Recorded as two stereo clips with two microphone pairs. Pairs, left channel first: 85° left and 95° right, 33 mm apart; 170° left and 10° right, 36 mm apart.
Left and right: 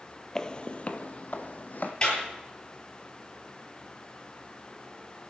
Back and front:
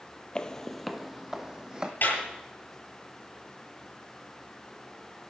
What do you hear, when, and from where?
0.3 s footsteps: 130° left, 0.6 m; by 1.9 s 60° left, 1.3 m
2.0 s a clap: 140° left, 8 m